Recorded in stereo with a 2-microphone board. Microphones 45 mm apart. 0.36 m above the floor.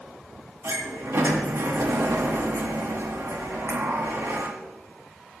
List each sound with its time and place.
0.6 s a sliding door: 70° right (ahead or behind), 1.7 m